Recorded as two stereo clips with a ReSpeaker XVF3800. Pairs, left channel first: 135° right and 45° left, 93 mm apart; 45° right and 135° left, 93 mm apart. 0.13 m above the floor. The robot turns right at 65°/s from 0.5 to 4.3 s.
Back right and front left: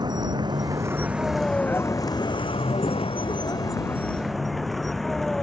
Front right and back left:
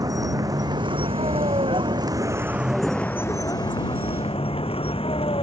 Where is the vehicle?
85° left; by 5.4 s 50° right.